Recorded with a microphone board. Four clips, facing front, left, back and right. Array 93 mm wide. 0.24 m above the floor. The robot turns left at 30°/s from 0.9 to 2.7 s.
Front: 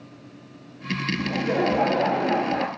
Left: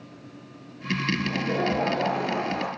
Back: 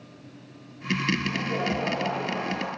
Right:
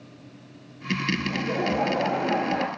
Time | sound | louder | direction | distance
1.2 | laughter | left 1 dB, front 5 dB | 5° left | 4.5 m